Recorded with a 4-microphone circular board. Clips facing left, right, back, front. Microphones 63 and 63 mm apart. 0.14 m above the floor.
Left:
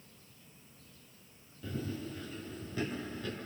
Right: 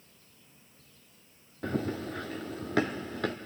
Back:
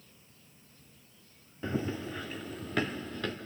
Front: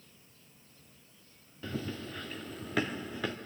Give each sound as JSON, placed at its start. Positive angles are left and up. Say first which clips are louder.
{"t": 1.6, "sound": "running footsteps", "louder": "right 7 dB, back 5 dB", "azimuth_deg": -115, "distance_m": 1.2}